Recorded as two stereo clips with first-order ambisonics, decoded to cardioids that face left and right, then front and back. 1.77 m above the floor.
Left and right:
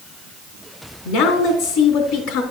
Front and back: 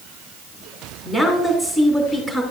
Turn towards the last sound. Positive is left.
turn(degrees=75)